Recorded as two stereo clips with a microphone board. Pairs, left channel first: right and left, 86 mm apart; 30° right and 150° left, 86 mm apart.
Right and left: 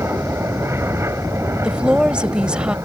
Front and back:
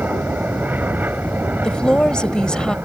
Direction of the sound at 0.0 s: 100° left.